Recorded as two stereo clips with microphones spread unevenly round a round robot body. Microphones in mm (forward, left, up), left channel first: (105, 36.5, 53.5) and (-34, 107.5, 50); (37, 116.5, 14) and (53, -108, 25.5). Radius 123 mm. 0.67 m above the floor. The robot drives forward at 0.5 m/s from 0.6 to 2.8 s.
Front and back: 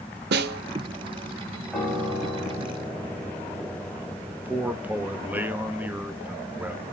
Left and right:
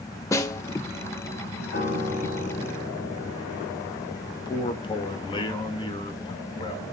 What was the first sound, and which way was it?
A snare drum, 170° left.